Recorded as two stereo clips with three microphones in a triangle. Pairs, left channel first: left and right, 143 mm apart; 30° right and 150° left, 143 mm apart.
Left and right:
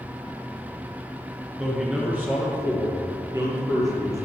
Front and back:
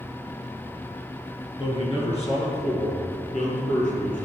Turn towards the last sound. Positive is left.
turn(degrees=-25)